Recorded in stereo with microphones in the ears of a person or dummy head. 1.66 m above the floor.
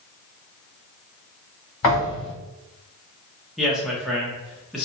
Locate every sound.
1.8 s a thud: 10° left (ahead or behind), 1.6 m
3.6 s a man speaking: 5° right (ahead or behind), 0.6 m